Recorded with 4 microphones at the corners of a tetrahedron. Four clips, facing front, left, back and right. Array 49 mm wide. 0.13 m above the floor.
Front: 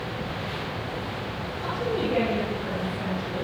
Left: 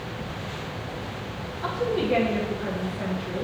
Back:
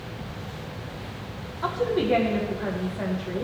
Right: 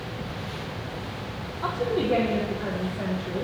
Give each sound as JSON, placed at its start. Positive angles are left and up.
{"t": 1.6, "sound": "a woman speaking", "azimuth_deg": -150, "distance_m": 5.5}